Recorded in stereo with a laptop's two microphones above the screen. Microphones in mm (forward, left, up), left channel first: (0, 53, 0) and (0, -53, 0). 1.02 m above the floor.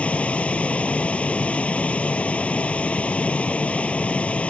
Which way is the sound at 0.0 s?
10° left (ahead or behind).